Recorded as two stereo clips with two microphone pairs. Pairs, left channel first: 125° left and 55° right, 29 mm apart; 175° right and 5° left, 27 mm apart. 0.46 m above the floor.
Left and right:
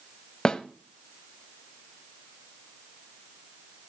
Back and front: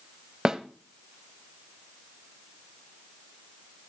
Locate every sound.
0.5 s a snare drum: 65° left, 1.0 m